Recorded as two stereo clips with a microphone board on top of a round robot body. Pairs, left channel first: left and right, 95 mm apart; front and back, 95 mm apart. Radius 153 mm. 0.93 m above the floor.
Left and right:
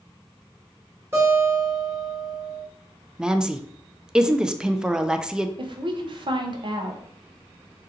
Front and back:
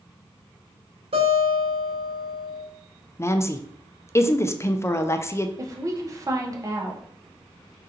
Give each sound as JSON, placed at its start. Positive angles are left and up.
{"t": 1.1, "sound": "a guitar", "azimuth_deg": -160, "distance_m": 2.0}
{"t": 3.2, "sound": "a woman speaking", "azimuth_deg": -15, "distance_m": 0.6}
{"t": 5.6, "sound": "a woman speaking", "azimuth_deg": -125, "distance_m": 0.7}